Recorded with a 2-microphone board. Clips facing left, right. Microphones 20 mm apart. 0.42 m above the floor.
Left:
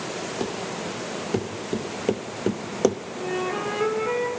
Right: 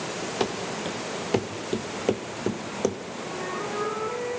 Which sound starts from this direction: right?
Running footsteps, at 0.4 s.